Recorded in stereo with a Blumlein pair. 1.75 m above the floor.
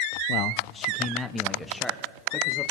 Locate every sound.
0.3 s a man speaking: 45° left, 0.5 m; by 2.7 s straight ahead, 2.5 m